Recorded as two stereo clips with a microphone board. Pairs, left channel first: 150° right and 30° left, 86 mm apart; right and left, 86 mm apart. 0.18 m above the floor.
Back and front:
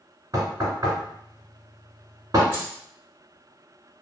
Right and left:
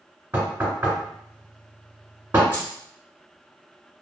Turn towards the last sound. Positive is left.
turn(degrees=-30)